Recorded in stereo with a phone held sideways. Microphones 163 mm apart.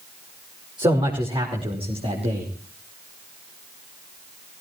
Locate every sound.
0.8 s a man speaking: 30° right (ahead or behind), 5 m; by 2.5 s 40° right (ahead or behind), 4.5 m